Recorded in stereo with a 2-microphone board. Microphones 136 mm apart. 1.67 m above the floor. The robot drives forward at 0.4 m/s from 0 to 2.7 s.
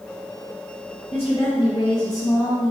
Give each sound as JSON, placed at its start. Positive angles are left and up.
{"t": 1.1, "sound": "a woman speaking", "side_deg": 45, "distance_m": 0.9}